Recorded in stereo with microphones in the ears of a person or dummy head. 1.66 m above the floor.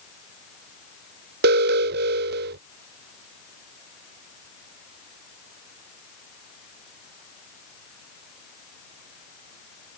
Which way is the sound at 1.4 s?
50° right (ahead or behind).